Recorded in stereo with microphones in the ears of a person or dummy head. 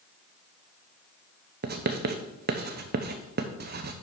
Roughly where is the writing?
Right.